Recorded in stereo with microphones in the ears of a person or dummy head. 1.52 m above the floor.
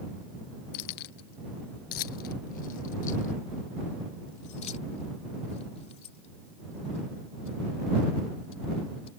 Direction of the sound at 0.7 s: 55° left (ahead or behind).